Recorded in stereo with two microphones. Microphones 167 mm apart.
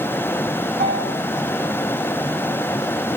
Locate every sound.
0.8 s a bell: 80° right, 4.5 m